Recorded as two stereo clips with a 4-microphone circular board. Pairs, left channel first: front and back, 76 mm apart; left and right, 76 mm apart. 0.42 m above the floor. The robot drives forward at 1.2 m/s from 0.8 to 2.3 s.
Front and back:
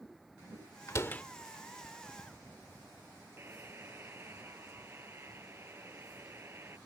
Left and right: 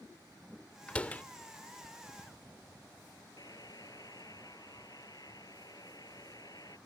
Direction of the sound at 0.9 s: 20° left.